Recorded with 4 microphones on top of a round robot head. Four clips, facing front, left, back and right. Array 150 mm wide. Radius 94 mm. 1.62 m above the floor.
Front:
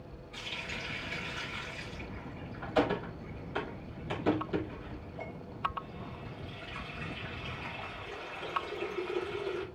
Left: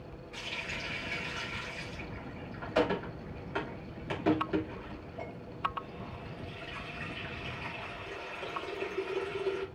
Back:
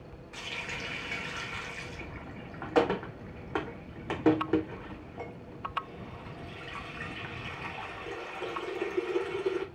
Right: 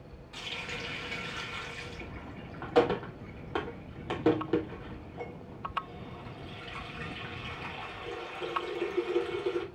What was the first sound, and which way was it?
A running tap, 145° right.